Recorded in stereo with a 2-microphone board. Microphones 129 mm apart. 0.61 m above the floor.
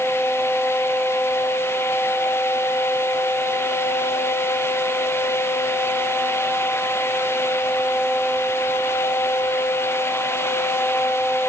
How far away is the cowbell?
No cowbell in this recording.